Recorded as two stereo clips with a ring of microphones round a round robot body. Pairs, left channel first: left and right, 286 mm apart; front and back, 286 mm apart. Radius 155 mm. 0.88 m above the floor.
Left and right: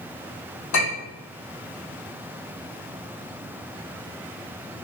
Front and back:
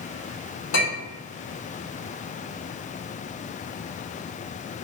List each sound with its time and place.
0.7 s a clink: 45° left, 1.3 m